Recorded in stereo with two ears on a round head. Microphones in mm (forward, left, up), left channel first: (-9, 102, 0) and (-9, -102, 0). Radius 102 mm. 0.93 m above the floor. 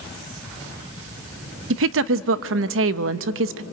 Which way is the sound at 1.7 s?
60° right (ahead or behind).